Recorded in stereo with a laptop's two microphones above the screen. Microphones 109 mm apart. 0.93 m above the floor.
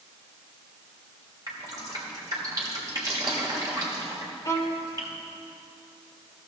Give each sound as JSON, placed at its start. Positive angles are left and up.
{"t": 1.5, "sound": "dripping", "side_deg": -35, "distance_m": 1.5}
{"t": 4.5, "sound": "a violin", "side_deg": 30, "distance_m": 0.7}